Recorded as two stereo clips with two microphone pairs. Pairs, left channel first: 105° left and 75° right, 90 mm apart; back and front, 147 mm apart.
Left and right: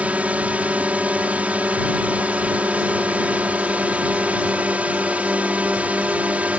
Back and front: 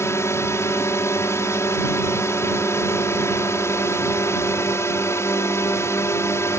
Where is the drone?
135° right.